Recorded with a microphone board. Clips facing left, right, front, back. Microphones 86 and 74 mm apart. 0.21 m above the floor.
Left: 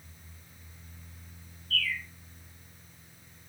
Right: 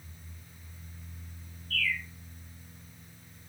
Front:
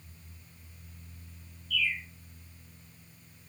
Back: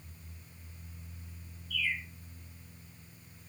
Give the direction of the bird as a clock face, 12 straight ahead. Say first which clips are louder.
Right 1 dB, front 3 dB; 7 o'clock.